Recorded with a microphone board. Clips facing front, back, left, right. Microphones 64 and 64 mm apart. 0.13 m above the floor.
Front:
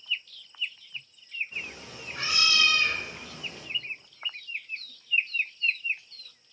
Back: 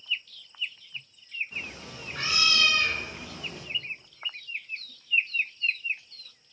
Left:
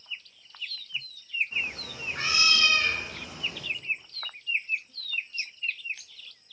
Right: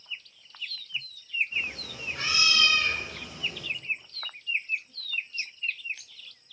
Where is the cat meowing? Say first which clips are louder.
Even, even; 160° left, 7 m; by 3.6 s 150° left, 6 m.